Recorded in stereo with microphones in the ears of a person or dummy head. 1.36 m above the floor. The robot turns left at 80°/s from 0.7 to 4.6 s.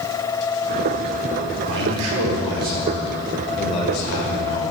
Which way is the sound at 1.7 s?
55° right.